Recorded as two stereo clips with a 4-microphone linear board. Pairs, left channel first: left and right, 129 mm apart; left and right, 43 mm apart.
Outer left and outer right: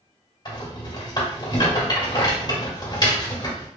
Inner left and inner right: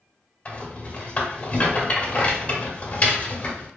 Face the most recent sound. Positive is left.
turn(degrees=35)  # may be behind; listen again after turning